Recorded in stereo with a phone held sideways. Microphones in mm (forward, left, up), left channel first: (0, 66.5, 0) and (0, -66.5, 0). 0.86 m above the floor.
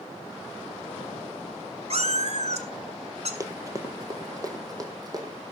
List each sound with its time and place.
1.9 s a cat meowing: 55° right (ahead or behind), 1.5 m
3.4 s running footsteps: 25° right (ahead or behind), 1.3 m; by 5.3 s 30° right (ahead or behind), 2.5 m